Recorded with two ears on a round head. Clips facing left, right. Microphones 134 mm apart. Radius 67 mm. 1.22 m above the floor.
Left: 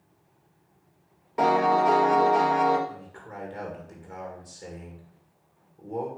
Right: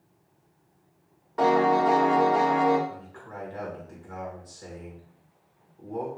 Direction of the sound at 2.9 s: 15° left (ahead or behind).